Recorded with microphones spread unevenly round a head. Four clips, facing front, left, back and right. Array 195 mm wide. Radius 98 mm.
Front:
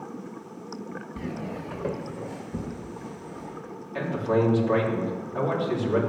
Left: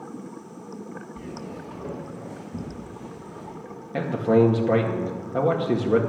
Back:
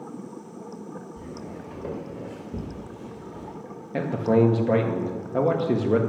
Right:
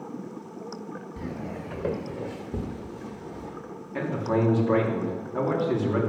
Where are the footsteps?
35° right, 1.6 m; by 3.5 s 135° right, 3 m.